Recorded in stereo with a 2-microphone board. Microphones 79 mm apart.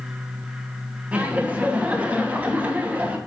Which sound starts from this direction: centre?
Laughter, at 1.1 s.